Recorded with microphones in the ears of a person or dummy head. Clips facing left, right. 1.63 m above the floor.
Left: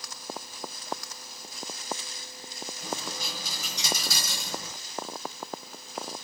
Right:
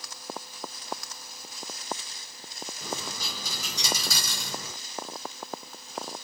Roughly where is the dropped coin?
Right.